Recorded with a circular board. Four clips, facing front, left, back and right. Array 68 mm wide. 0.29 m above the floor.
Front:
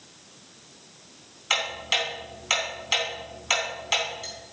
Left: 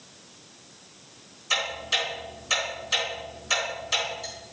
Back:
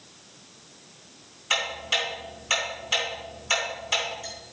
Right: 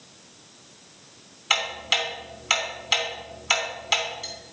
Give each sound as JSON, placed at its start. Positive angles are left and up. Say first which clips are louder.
{"t": 1.5, "sound": "ticking", "louder": "right 2 dB, even", "azimuth_deg": -65, "distance_m": 3.0}